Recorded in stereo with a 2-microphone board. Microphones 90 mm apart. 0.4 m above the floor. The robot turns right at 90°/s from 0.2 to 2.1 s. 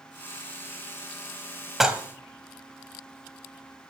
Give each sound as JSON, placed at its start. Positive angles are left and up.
{"t": 1.8, "sound": "dishes clattering", "side_deg": -5, "distance_m": 1.4}